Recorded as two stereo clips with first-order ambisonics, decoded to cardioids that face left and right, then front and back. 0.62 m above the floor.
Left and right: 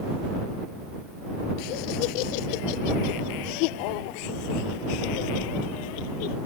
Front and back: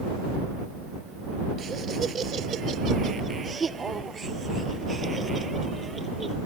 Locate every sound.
1.6 s laughter: 110° left; by 6.4 s 95° left